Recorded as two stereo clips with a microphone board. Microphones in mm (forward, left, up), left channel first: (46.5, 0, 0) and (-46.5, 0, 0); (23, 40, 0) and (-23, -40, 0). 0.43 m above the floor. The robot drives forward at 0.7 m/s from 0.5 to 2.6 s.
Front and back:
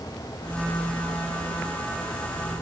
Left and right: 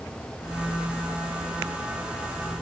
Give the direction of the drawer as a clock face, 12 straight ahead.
I don't hear a drawer.